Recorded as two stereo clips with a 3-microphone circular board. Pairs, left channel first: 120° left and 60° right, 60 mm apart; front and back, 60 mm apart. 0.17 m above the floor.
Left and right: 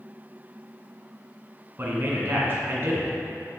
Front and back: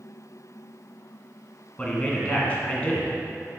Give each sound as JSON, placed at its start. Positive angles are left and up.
{"t": 1.8, "sound": "a man speaking", "azimuth_deg": -55, "distance_m": 1.4}